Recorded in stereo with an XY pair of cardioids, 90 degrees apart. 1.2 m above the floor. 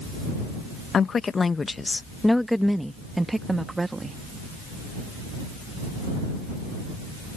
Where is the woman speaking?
50° left; by 4.2 s 25° right.